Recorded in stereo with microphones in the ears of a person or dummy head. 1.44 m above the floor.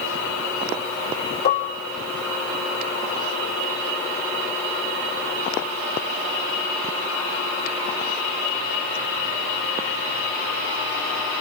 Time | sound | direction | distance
1.4 | dishes clattering | 55° left (ahead or behind) | 3 m